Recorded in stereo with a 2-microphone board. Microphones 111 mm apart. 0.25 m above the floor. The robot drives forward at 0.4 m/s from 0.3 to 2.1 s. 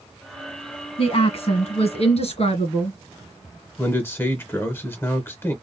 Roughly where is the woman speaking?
Left.